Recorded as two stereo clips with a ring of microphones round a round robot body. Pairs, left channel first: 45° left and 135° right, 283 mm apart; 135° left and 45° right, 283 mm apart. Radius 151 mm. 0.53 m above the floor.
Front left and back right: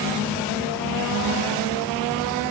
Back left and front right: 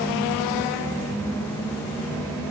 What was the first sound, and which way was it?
Only background noise.